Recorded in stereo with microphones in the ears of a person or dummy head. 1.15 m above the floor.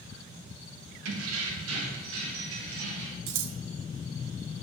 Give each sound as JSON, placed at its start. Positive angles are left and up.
{"t": 1.1, "sound": "keys jangling", "side_deg": -85, "distance_m": 0.9}
{"t": 3.3, "sound": "scissors", "side_deg": -65, "distance_m": 0.7}